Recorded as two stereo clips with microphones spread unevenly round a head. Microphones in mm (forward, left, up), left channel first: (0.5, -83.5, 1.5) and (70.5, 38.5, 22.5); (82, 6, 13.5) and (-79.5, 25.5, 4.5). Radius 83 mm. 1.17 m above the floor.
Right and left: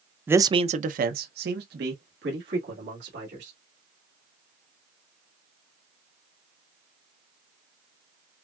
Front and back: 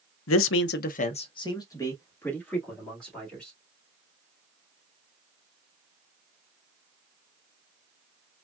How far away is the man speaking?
About 0.6 m.